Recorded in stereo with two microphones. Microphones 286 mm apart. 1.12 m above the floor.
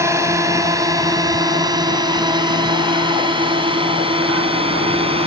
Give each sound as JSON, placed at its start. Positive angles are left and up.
{"t": 0.0, "sound": "a drone", "side_deg": -10}